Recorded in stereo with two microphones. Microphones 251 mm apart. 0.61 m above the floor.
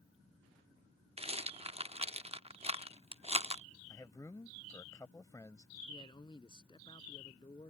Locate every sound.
1.2 s a rattle: 25° right (ahead or behind)
3.9 s a man speaking: 15° left (ahead or behind)
5.9 s a man speaking: 20° left (ahead or behind)